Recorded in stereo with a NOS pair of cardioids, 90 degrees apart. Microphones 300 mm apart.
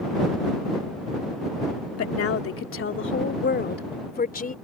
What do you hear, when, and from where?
2.0 s a woman speaking: 55° left; by 4.5 s 25° left